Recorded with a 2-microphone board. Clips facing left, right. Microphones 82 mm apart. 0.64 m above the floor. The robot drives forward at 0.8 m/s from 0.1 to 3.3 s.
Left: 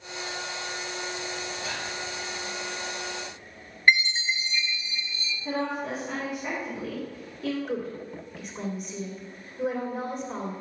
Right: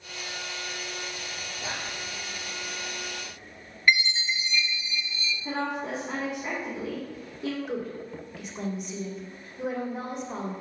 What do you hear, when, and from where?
1.6 s whispering: 30° right (ahead or behind), 1.0 m
3.9 s a chime: 30° left (ahead or behind), 0.6 m
5.5 s a woman speaking: 20° right (ahead or behind), 1.6 m
7.7 s a woman speaking: centre (ahead or behind), 2.0 m